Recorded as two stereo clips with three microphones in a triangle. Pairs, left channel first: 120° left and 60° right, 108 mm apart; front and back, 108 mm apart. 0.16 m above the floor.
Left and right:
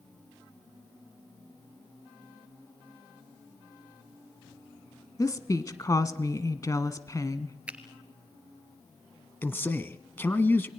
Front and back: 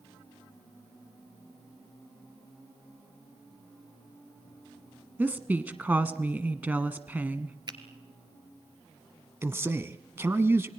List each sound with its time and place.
5.2 s a woman speaking: 125° left, 1.2 m
7.7 s a finger snap: 135° right, 2 m
9.4 s a man speaking: 155° left, 1.1 m